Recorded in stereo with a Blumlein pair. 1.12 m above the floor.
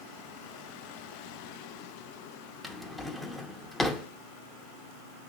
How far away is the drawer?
About 0.8 m.